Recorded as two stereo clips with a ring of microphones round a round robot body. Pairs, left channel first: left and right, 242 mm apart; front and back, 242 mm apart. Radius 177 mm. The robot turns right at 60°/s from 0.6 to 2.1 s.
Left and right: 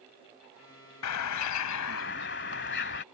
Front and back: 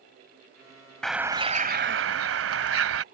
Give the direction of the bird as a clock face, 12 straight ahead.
9 o'clock.